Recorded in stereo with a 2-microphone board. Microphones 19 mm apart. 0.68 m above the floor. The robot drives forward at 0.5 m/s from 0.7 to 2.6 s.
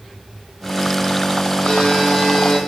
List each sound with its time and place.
1.6 s a buzzer: 70° left (ahead or behind), 5.5 m